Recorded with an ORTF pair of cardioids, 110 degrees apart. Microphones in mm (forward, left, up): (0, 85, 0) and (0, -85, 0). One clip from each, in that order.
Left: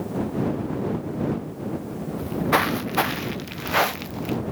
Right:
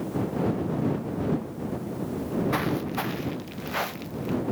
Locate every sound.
2.2 s footsteps: 50° left; by 4.4 s 45° left